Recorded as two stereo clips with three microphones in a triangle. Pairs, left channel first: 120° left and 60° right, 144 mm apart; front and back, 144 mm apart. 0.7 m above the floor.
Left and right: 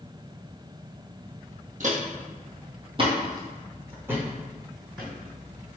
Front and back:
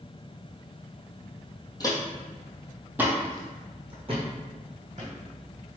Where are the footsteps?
60° right, 1.3 m; by 5.1 s 150° right, 2 m.